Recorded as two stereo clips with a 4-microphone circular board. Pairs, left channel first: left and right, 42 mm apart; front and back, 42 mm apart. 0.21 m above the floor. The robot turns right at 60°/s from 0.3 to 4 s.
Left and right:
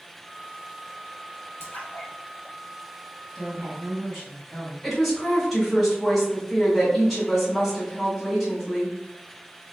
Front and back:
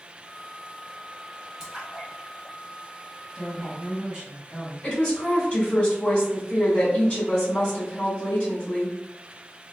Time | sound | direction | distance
1.6 | a splash | 105° left | 2.0 m
3.3 | a woman speaking | 155° left | 1.4 m
4.8 | a woman speaking | 10° right | 1.6 m